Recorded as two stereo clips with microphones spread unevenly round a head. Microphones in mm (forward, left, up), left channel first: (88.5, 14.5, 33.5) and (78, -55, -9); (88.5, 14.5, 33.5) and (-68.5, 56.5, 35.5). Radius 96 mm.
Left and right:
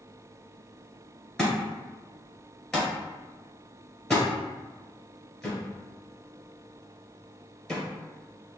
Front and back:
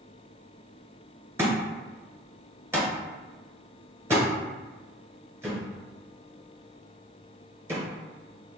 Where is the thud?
100° left, 1.6 m.